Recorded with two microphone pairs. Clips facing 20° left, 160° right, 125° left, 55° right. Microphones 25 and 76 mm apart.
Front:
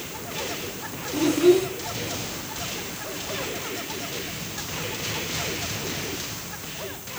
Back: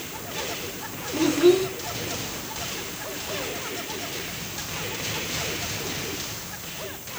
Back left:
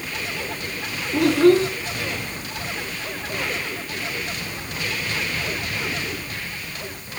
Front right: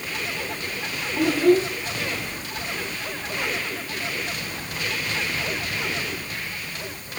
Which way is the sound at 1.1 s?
125° left.